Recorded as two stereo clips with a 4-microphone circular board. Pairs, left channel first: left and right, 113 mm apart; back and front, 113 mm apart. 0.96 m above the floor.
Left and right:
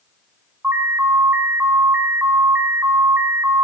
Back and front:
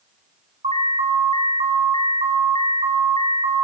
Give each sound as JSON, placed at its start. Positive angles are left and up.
{"t": 0.6, "sound": "an alarm", "azimuth_deg": -20, "distance_m": 5.5}